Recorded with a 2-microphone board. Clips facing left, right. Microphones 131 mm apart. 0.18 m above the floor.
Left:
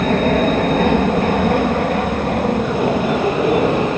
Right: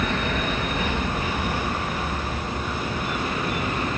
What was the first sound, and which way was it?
An aircraft, 50° left (ahead or behind).